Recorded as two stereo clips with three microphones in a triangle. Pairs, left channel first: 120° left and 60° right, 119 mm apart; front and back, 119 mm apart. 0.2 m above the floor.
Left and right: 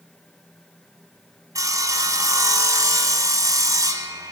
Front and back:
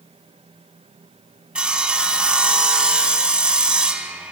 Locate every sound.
1.6 s sawing: 100° right, 0.9 m